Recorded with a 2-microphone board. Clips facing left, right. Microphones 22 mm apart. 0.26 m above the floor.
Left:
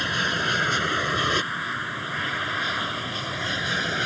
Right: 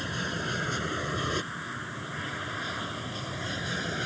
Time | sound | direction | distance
0.0 | an aircraft | 40° left (ahead or behind) | ?